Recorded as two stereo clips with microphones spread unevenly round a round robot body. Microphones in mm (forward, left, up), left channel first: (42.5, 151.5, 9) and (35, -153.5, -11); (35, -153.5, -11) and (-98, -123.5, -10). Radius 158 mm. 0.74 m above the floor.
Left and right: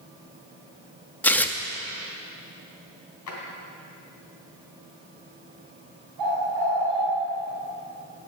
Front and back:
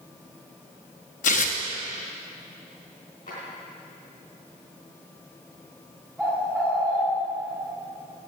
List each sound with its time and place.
1.2 s tearing paper: straight ahead, 0.6 m
3.3 s a drawer: 55° left, 3 m
6.2 s a bird: 110° right, 4.5 m